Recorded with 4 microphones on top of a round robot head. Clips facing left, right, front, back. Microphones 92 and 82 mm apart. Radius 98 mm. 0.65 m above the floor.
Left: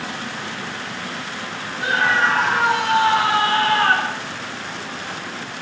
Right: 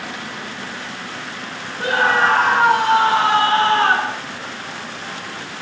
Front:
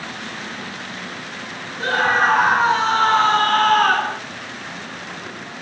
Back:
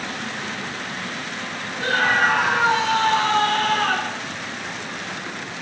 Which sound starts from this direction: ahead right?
A scream, at 1.8 s.